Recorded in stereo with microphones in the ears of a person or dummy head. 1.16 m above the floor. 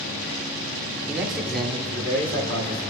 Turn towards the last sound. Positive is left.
turn(degrees=30)  # may be behind; listen again after turning